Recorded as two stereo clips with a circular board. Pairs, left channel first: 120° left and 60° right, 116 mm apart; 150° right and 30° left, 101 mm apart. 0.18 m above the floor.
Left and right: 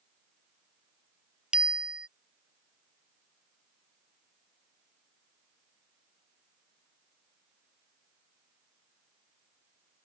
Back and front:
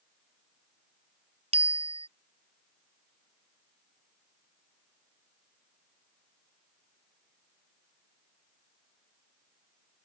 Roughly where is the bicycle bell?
Ahead.